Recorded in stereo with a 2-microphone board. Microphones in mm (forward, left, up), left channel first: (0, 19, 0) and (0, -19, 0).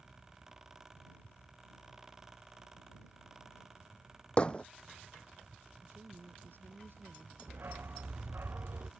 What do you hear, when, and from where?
4.4 s hammering: 30° left (ahead or behind)
5.8 s a woman speaking: 60° right (ahead or behind)
7.5 s a dog barking: 65° right (ahead or behind)